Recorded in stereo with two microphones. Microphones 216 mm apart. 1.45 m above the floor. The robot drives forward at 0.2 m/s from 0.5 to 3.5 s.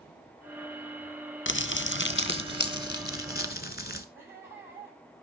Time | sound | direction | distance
1.5 | crumpling | 60° left (ahead or behind) | 0.8 m
4.2 | laughter | 10° right (ahead or behind) | 8.5 m